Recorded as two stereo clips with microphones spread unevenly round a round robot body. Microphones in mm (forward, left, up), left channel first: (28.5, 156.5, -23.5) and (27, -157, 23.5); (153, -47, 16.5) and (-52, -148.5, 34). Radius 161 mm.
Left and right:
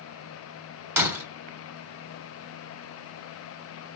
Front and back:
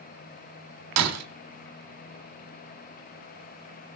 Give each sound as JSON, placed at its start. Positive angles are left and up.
{"t": 1.0, "sound": "breaking glass", "azimuth_deg": -175, "distance_m": 3.0}